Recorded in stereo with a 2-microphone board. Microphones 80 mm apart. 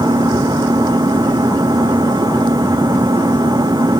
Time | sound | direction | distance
0.0 | an engine running | 60° right (ahead or behind) | ?